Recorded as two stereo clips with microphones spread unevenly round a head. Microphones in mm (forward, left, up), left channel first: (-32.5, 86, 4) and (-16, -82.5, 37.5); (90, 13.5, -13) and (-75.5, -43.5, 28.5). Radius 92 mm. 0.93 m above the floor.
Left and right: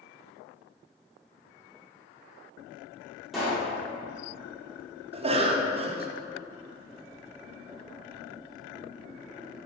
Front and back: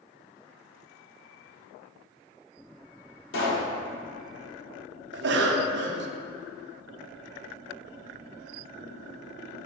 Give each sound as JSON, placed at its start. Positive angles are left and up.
{"t": 3.3, "sound": "a pop", "azimuth_deg": 5, "distance_m": 1.6}
{"t": 5.1, "sound": "a cough", "azimuth_deg": -140, "distance_m": 0.7}